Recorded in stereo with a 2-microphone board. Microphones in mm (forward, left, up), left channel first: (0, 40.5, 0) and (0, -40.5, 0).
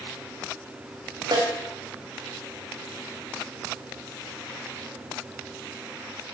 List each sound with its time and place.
1.3 s a snare drum: 60° right (ahead or behind), 3 m